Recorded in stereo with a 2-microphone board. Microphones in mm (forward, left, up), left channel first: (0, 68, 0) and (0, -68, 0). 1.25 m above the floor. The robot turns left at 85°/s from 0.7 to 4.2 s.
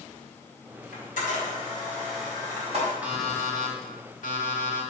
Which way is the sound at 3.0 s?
165° right.